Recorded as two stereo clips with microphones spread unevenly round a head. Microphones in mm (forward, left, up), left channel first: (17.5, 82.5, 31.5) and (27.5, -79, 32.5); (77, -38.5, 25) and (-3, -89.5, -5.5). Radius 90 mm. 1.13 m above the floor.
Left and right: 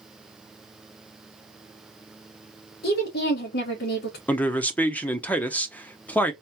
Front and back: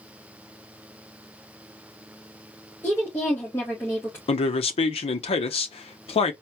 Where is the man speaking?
15° left, 0.7 m.